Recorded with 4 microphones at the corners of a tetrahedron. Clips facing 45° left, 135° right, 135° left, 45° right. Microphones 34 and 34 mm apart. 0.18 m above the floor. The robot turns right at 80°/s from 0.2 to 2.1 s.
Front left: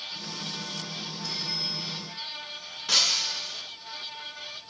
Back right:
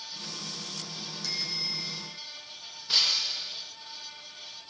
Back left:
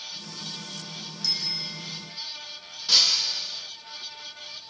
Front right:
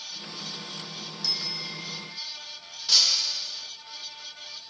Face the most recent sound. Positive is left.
turn(degrees=55)